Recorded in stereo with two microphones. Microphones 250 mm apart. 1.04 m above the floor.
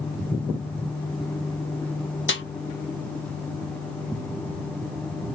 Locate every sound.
2.3 s a snare drum: 50° left (ahead or behind), 0.7 m